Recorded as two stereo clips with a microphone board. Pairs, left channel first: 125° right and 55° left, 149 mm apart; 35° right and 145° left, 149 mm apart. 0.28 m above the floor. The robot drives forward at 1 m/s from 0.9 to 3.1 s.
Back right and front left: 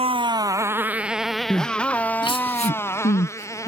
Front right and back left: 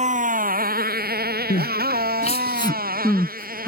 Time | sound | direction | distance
0.0 | a motorcycle | 105° left | ?
1.5 | crying | 45° right | ?